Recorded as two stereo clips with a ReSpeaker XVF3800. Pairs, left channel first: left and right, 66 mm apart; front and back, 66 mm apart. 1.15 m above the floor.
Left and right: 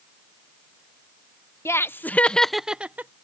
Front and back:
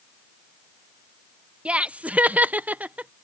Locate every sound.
1.6 s laughter: 115° left; by 3.1 s 125° right